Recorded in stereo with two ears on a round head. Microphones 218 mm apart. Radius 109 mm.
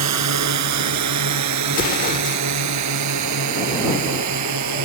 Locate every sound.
0.0 s a drone: 75° right (ahead or behind); by 4.8 s 80° right
1.7 s an explosion: 35° left (ahead or behind)